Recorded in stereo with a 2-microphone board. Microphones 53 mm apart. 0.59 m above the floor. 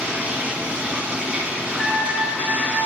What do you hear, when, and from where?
0.0 s running water: 25° right (ahead or behind), 1.6 m
1.7 s a trumpet: 5° right (ahead or behind), 1.5 m